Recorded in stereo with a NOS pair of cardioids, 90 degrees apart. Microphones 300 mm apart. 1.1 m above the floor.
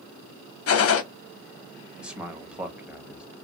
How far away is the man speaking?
About 1.1 m.